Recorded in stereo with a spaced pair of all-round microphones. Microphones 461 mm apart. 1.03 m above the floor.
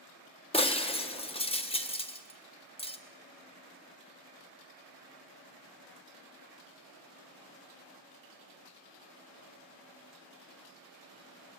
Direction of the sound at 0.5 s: 15° left (ahead or behind).